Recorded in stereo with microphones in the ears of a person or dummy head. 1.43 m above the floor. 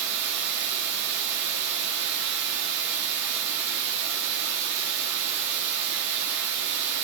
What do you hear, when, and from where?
0.0 s running water: 60° right (ahead or behind), 1.1 m